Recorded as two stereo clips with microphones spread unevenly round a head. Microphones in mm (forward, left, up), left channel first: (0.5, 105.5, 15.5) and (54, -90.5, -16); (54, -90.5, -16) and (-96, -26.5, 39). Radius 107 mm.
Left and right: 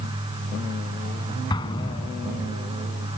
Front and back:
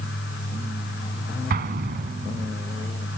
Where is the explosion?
175° left.